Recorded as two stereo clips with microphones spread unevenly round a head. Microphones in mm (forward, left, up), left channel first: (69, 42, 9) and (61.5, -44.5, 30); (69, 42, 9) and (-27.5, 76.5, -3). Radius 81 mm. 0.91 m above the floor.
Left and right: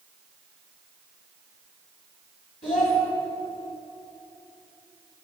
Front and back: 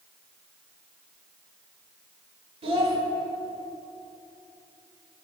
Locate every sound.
2.6 s a child speaking: 140° left, 1.8 m